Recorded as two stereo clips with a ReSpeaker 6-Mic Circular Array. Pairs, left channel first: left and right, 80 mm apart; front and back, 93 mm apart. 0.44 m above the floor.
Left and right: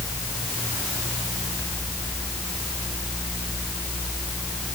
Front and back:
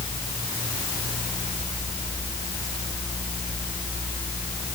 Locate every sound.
Only background noise.